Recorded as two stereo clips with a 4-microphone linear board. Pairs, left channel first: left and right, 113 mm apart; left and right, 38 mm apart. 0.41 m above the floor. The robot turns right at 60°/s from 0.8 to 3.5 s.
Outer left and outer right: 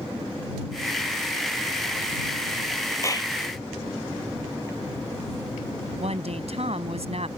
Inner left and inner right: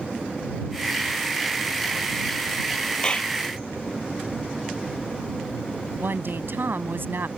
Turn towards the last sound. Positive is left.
turn(degrees=-70)  # may be behind; listen again after turning